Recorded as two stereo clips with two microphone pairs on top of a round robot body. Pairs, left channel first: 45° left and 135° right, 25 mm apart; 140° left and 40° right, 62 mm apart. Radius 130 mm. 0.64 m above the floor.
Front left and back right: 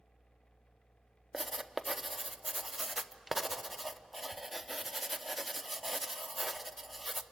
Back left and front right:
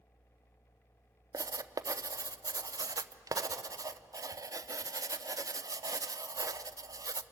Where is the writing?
50° right, 0.8 m.